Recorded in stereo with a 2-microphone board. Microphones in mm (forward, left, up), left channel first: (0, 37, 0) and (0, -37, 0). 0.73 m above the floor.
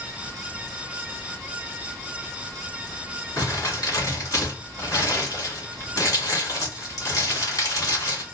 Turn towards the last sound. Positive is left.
turn(degrees=50)  # may be behind; listen again after turning